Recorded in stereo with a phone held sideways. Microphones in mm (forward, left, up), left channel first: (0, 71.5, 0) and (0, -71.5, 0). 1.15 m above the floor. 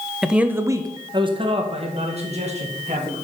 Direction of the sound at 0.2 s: Centre (ahead or behind).